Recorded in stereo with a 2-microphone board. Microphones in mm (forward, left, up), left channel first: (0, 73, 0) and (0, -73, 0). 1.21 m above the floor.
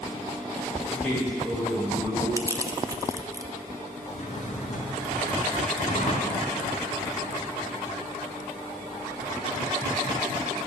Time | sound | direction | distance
0.9 | a man speaking | 5° left (ahead or behind) | 2.5 m
2.4 | crushing | 20° right (ahead or behind) | 0.5 m
4.0 | a drawer | 55° left (ahead or behind) | 2.5 m